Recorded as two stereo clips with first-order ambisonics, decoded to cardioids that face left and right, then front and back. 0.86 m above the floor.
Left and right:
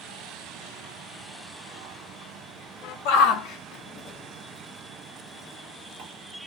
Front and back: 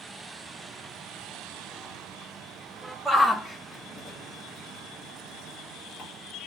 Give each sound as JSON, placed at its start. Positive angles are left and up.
{"t": 3.0, "sound": "a shout", "azimuth_deg": 90, "distance_m": 1.0}